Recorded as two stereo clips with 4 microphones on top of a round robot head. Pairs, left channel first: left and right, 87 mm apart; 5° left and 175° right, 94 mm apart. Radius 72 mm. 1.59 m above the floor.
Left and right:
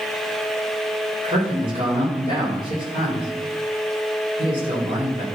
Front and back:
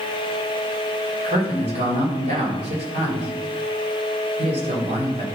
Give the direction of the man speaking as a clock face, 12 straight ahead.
5 o'clock.